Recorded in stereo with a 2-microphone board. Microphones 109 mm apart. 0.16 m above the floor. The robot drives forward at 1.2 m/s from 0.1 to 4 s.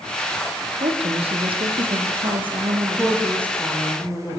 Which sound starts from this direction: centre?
A woman speaking, at 2.8 s.